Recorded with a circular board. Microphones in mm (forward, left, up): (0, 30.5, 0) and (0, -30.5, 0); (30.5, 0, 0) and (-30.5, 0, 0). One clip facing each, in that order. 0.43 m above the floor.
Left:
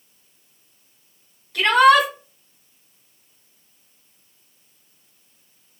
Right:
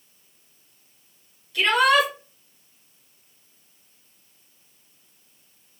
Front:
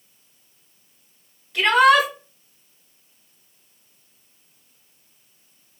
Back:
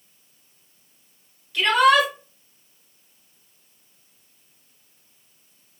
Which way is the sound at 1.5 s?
50° left.